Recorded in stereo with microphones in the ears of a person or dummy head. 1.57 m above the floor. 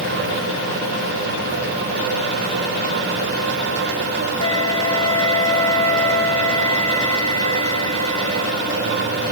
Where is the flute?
80° left, 2.5 m.